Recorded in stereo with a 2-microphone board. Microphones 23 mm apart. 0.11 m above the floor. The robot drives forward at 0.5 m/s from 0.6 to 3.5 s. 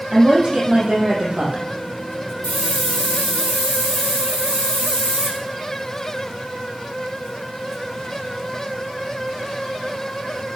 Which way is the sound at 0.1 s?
50° right (ahead or behind).